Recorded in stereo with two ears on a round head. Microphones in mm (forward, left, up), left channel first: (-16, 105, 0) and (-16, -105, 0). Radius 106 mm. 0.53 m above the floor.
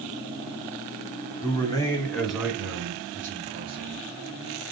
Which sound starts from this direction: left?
A man speaking, at 1.4 s.